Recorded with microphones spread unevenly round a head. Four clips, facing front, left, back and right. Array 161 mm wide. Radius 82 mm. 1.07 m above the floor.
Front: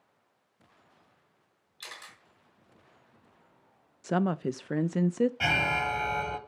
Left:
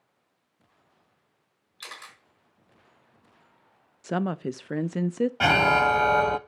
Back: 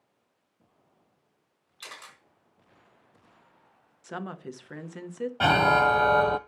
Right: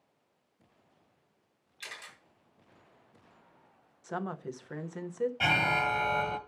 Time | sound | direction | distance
1.8 | a camera shutter | 120° left | 4 m
4.0 | a woman speaking | 55° left | 0.6 m
5.4 | an alarm | 135° left | 0.6 m